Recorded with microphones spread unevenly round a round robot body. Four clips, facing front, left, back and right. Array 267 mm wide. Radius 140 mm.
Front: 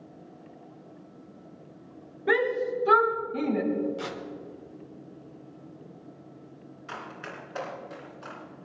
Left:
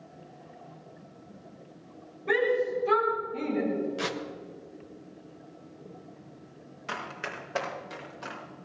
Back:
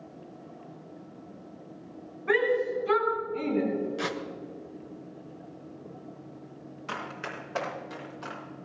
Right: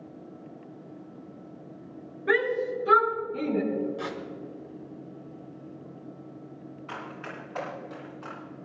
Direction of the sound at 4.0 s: 115° left.